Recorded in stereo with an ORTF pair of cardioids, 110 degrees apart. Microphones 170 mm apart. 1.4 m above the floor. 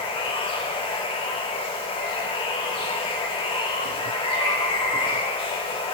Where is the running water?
30° left, 2.5 m.